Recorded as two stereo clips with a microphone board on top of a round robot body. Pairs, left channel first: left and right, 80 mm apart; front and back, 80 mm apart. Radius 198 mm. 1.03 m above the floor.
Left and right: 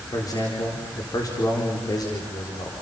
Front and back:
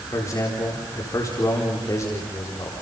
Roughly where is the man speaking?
Ahead left.